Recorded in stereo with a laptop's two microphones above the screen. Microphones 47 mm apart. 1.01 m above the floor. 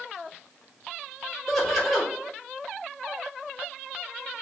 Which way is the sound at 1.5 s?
Centre (ahead or behind).